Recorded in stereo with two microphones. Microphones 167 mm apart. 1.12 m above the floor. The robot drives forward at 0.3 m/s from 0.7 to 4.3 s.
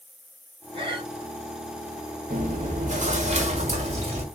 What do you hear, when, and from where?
0.7 s breathing: 30° right (ahead or behind), 1.4 m; by 1.1 s 35° right (ahead or behind), 1.3 m
2.3 s chewing: 50° right (ahead or behind), 1.3 m; by 4.2 s 35° right (ahead or behind), 1.6 m